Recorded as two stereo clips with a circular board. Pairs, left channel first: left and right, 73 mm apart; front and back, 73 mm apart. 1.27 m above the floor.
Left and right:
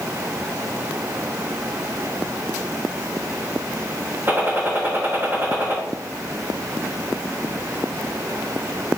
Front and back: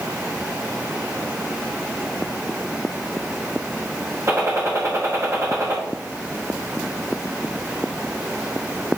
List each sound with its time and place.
4.3 s a gunshot: 140° right, 0.9 m